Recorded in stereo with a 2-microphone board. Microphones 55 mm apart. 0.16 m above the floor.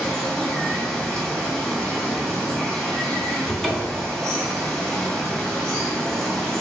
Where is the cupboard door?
5° left (ahead or behind), 0.7 m.